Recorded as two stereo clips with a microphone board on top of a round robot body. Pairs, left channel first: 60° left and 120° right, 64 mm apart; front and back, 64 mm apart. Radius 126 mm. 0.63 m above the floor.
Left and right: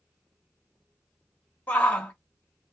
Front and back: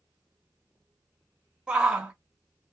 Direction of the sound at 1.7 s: 110° left.